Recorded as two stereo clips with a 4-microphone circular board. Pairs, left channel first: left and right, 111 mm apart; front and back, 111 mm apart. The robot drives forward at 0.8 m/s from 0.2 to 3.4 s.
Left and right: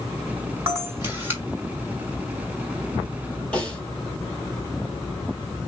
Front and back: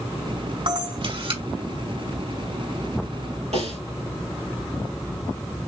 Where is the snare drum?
170° left, 3.5 m.